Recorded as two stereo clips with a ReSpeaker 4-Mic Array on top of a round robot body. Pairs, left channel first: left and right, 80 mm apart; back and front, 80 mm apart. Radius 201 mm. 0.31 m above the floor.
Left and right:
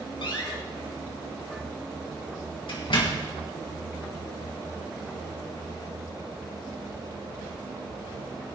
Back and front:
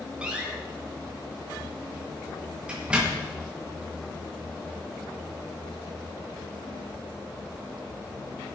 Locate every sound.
0.2 s a door slam: 75° left, 3 m